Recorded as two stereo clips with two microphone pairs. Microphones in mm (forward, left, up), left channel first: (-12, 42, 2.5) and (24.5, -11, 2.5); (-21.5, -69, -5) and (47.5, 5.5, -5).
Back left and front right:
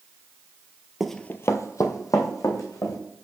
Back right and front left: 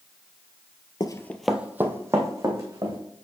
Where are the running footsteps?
135° right, 0.6 m; by 3.0 s 100° left, 2.5 m.